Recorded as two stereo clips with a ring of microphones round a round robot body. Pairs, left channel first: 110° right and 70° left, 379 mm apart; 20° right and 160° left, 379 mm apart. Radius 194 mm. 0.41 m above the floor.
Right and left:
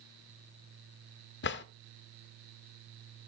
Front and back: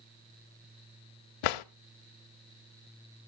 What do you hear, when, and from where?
1.4 s a drawer: 50° right, 0.5 m